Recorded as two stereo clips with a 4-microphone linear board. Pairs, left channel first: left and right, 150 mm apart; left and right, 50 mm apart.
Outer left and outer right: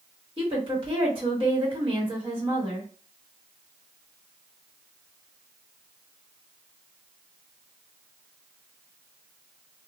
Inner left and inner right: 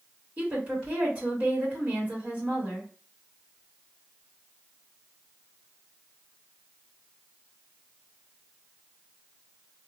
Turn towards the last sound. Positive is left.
turn(degrees=-35)  # may be behind; listen again after turning